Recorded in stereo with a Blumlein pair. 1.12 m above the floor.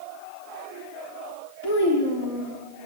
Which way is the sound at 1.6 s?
55° left.